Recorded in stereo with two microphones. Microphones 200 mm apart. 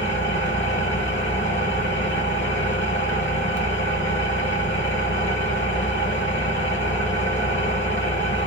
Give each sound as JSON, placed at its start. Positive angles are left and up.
{"t": 0.0, "sound": "an engine running", "side_deg": 65, "distance_m": 0.9}